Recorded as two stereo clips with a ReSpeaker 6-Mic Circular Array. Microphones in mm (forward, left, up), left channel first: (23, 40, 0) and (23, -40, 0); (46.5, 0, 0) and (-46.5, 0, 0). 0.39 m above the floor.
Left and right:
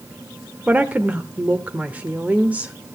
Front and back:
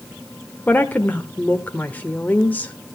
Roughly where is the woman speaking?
Ahead right.